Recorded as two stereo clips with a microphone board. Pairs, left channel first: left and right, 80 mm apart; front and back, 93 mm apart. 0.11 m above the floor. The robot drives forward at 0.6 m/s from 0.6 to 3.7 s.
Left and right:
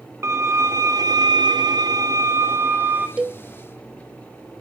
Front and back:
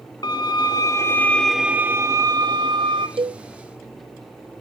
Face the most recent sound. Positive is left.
turn(degrees=-170)